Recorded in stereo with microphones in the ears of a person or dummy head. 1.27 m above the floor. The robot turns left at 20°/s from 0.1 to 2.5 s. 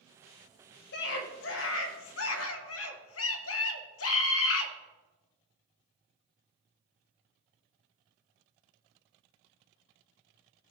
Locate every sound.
0.9 s a scream: 115° left, 1.3 m; by 4.7 s 85° left, 1.3 m